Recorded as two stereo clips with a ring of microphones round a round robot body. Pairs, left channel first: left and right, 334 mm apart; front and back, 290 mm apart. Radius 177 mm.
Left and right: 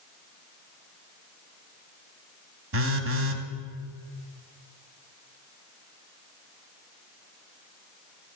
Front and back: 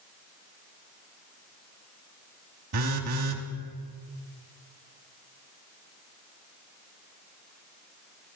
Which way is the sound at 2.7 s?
140° right.